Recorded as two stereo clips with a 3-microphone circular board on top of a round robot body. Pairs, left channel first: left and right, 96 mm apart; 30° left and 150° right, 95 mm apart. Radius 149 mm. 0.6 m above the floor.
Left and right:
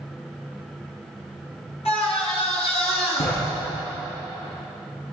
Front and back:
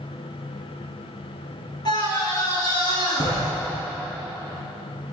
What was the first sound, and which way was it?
A scream, 75° left.